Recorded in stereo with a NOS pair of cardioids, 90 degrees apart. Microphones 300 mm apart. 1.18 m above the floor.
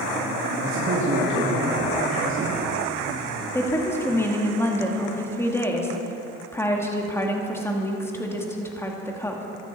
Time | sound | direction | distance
0.6 | a man speaking | 45° right | 1.8 m
3.5 | a woman speaking | 10° left | 2 m